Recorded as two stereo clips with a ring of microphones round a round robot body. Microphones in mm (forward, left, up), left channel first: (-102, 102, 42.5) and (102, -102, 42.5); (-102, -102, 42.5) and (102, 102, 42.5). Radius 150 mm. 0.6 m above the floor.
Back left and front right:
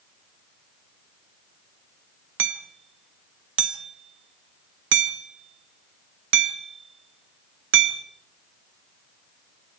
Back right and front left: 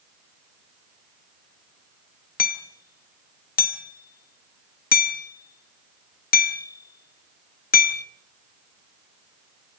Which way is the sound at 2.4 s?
80° right.